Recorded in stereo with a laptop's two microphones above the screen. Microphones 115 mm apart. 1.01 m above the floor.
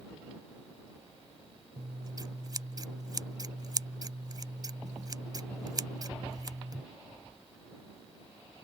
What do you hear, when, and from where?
1.8 s scissors: 35° right (ahead or behind)